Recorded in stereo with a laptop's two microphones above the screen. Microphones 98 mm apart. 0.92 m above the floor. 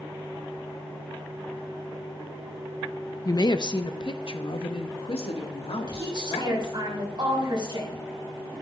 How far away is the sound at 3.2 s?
About 0.6 m.